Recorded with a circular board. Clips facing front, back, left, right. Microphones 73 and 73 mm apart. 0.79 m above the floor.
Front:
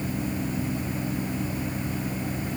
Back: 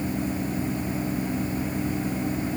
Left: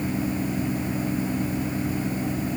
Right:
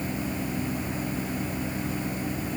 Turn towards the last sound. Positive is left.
No sound to turn to.